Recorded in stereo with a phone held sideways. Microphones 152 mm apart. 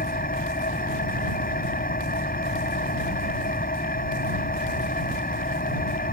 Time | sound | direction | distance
0.0 | an engine running | 75° left (ahead or behind) | ?